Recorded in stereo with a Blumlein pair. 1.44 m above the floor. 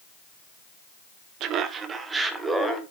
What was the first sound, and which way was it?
Laughter, 35° right.